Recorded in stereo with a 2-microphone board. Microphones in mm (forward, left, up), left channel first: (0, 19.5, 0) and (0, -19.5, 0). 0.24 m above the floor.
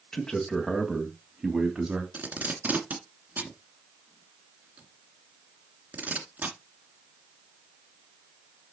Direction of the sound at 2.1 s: 50° right (ahead or behind).